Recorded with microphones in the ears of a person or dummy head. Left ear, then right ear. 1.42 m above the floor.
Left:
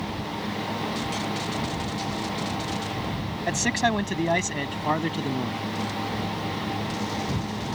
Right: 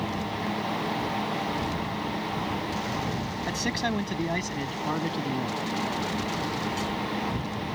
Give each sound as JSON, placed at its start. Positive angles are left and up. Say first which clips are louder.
{"t": 3.5, "sound": "a man speaking", "louder": "left 6 dB", "side_deg": 30}